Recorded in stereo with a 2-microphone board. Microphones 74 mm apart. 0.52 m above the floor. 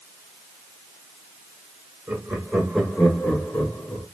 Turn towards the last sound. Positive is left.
turn(degrees=45)  # may be behind; listen again after turning